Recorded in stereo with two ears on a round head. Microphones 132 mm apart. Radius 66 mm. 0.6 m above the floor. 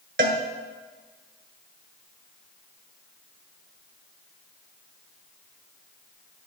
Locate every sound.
0.2 s a cowbell: 70° right (ahead or behind), 1.4 m